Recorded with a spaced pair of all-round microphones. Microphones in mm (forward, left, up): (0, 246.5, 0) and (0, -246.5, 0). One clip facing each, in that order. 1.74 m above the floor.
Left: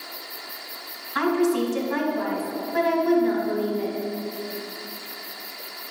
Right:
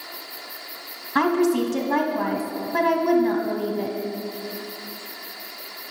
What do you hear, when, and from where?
1.1 s a woman speaking: 65° right (ahead or behind), 0.8 m